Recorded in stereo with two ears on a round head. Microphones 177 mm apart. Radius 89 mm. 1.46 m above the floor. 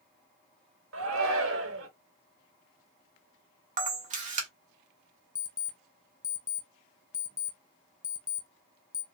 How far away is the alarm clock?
About 0.6 m.